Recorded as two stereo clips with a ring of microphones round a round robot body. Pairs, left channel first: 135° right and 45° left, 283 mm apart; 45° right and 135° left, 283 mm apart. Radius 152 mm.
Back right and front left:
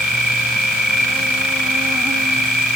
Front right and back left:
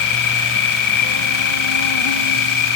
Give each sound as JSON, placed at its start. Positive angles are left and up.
{"t": 0.0, "sound": "an insect", "azimuth_deg": -45, "distance_m": 2.0}